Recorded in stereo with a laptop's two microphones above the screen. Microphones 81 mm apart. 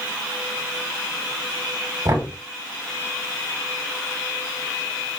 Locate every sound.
2.0 s knocking: 40° right (ahead or behind), 1.7 m